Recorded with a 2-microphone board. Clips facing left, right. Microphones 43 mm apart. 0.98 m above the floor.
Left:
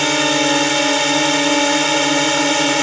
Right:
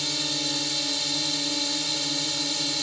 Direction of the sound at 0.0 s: 65° left (ahead or behind).